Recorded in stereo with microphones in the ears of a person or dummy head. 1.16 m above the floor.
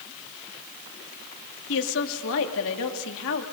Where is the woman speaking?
70° left (ahead or behind), 2.5 m.